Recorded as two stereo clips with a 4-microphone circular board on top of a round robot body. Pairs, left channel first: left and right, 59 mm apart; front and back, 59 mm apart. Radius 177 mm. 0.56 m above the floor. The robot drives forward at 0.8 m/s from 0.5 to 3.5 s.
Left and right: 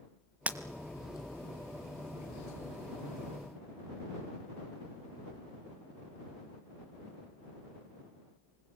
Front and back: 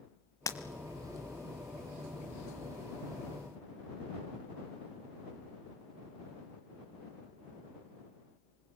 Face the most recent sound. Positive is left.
turn(degrees=-160)